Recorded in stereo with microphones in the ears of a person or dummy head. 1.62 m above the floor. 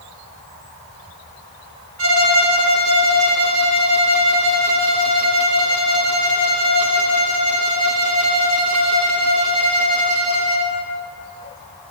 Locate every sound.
2.0 s a violin: 85° right, 1.0 m